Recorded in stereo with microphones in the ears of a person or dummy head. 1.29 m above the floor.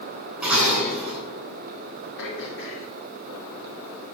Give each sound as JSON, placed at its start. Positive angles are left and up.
{"t": 0.4, "sound": "dishes clattering", "side_deg": -5, "distance_m": 8.0}
{"t": 2.2, "sound": "throat clearing", "side_deg": 75, "distance_m": 4.5}